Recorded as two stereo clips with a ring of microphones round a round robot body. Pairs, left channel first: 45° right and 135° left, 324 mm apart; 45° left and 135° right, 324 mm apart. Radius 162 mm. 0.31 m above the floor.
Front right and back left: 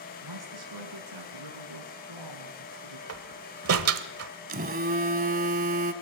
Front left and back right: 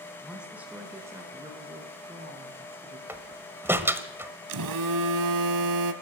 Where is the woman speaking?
135° left, 2.5 m; by 3.0 s 150° left, 4.5 m.